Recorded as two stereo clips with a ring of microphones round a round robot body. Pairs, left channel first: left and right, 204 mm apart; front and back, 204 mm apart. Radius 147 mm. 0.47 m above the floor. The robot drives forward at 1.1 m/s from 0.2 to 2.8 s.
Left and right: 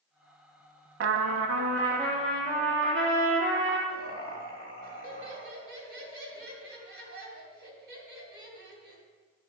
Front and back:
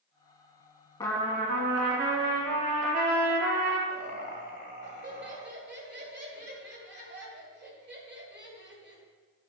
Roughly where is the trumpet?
Right.